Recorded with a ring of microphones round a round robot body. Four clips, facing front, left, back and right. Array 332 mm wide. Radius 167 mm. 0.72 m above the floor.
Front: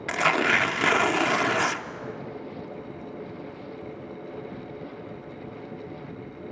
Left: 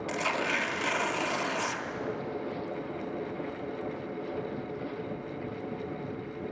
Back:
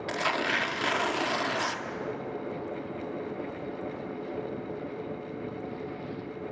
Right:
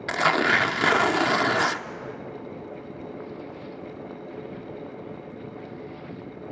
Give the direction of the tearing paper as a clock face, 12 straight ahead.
2 o'clock.